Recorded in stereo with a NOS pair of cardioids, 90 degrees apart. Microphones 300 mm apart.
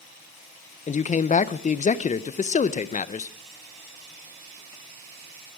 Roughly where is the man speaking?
Ahead left.